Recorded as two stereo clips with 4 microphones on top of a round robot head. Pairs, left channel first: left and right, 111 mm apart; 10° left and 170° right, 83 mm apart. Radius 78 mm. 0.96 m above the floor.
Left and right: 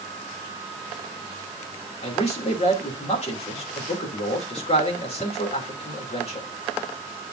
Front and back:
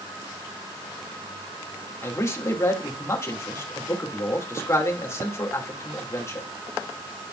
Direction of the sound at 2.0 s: 65° left.